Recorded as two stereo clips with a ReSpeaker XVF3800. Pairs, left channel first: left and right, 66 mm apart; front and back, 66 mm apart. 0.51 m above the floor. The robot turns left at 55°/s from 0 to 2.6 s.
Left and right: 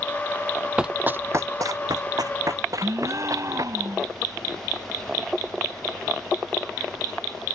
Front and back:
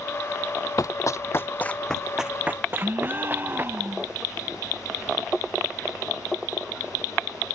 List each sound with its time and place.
0.8 s running footsteps: 15° right; by 3.7 s 120° right
2.8 s a gasp: 120° right